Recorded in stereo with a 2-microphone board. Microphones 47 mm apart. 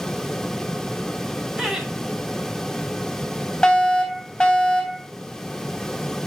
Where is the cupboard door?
No cupboard door in this recording.